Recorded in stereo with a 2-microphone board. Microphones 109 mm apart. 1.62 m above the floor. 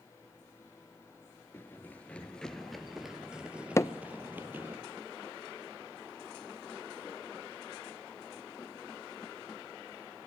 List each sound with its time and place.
1.5 s running footsteps: 20° left (ahead or behind), 1.8 m; by 4.8 s 20° right (ahead or behind), 3 m
3.8 s hammering: 25° left (ahead or behind), 0.7 m